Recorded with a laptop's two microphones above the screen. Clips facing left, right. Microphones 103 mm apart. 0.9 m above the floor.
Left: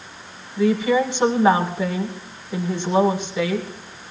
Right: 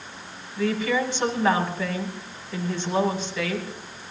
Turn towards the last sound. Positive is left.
turn(degrees=20)  # may be behind; listen again after turning